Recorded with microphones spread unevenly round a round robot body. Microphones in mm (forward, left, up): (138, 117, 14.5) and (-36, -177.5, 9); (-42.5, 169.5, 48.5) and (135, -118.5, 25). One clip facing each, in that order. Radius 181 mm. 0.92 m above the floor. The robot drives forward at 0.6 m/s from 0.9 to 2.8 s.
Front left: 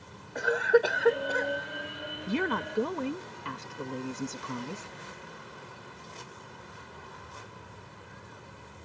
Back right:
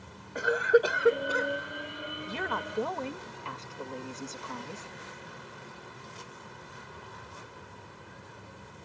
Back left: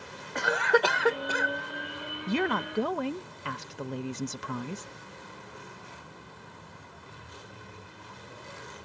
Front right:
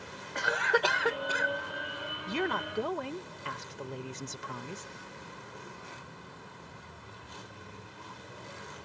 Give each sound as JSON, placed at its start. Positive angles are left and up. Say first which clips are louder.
{"t": 0.3, "sound": "a cough", "louder": "even, back left 5 dB", "azimuth_deg": 155}
{"t": 2.3, "sound": "a woman speaking", "louder": "front left 8 dB, back left 5 dB", "azimuth_deg": 110}